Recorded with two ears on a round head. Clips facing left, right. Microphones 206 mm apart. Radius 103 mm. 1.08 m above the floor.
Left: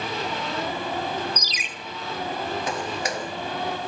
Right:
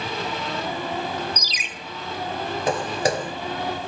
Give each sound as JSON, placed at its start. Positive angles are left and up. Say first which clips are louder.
{"t": 1.4, "sound": "a ringtone", "louder": "even", "side_deg": -70, "distance_m": 1.3}
{"t": 2.7, "sound": "footsteps", "louder": "right 6 dB", "side_deg": -35, "distance_m": 1.2}